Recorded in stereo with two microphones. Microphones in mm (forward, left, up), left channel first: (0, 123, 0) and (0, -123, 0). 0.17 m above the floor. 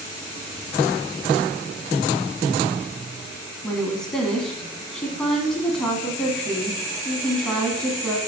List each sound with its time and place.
3.6 s a woman speaking: 5° left (ahead or behind), 1.1 m